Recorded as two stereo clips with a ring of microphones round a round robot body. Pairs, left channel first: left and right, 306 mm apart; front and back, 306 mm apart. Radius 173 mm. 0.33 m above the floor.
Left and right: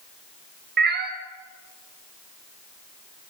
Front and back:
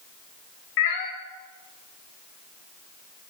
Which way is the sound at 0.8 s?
30° right.